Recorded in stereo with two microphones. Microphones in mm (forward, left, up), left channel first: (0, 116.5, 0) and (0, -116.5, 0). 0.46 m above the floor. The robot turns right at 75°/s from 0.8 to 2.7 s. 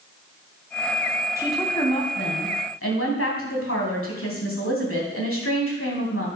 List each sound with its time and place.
1.4 s a woman speaking: 15° right, 3 m; by 6.3 s 85° left, 3 m